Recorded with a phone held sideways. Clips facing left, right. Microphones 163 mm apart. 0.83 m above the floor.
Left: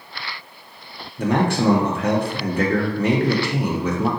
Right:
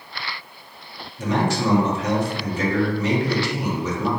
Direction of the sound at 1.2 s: 55° left (ahead or behind).